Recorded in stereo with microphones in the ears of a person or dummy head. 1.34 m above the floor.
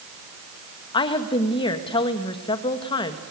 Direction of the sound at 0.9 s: 25° left (ahead or behind).